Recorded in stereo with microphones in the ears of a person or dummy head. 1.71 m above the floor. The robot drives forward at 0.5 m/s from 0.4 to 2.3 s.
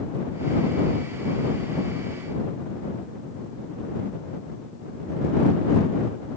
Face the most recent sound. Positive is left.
No sound to turn to.